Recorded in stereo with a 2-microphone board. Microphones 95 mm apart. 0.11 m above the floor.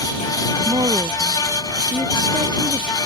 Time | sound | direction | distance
0.7 | a woman speaking | 50° right (ahead or behind) | ?